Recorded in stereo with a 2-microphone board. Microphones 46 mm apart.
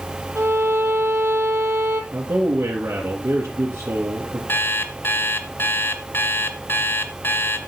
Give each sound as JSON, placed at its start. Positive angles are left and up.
{"t": 0.3, "sound": "a violin", "side_deg": -80, "distance_m": 4.0}
{"t": 2.1, "sound": "a man speaking", "side_deg": -65, "distance_m": 3.5}
{"t": 4.5, "sound": "an alarm clock", "side_deg": 55, "distance_m": 1.7}